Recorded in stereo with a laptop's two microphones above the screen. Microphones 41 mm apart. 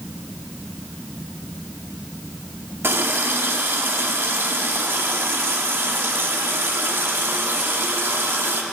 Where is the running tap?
80° right, 1.4 m.